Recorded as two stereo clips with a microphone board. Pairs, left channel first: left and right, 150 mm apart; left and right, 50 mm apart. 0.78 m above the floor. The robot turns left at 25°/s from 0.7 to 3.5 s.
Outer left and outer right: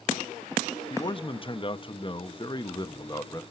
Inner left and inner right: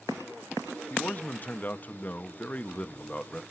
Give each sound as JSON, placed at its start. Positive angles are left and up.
{"t": 0.9, "sound": "a man speaking", "azimuth_deg": 105, "distance_m": 0.7}